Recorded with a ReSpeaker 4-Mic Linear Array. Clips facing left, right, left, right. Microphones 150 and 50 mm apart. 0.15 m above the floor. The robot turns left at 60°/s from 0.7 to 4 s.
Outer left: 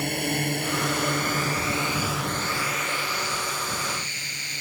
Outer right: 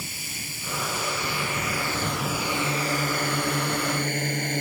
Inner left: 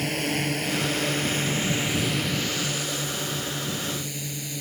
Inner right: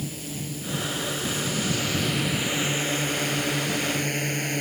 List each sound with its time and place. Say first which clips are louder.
0.0 s a drone: outer left 14 dB, inner left 8 dB; 65° left (ahead or behind); by 4.6 s 50° right (ahead or behind)